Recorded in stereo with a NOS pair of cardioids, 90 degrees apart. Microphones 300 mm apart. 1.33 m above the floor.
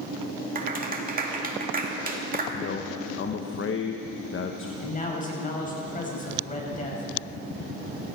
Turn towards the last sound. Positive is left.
turn(degrees=25)